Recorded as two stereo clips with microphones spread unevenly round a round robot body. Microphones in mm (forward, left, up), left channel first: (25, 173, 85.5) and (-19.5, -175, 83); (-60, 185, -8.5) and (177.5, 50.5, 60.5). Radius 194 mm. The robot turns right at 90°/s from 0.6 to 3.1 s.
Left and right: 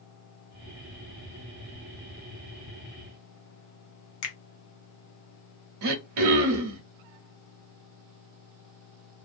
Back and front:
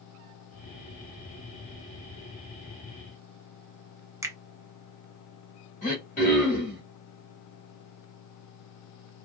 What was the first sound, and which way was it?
A finger snap, 55° left.